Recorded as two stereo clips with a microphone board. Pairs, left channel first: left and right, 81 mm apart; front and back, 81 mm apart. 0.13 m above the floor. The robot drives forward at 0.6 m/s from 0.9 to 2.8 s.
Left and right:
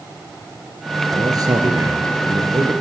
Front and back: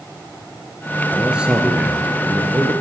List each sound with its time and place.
1.1 s a man speaking: 100° right, 2 m; by 2.7 s 125° right, 2.5 m